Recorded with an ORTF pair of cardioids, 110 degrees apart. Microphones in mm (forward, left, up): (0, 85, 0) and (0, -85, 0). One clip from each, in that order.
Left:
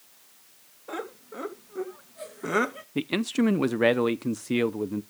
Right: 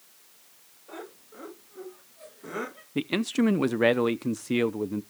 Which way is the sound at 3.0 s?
Straight ahead.